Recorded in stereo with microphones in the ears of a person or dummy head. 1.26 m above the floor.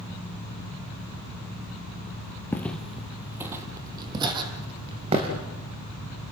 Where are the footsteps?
10° left (ahead or behind), 1.9 m; by 5.3 s 30° right (ahead or behind), 5 m.